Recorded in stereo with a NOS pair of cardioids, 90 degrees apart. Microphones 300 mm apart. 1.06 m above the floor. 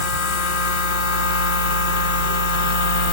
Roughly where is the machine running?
Left.